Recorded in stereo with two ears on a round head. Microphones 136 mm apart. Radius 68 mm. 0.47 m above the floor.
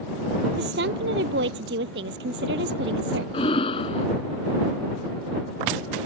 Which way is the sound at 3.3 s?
40° left (ahead or behind).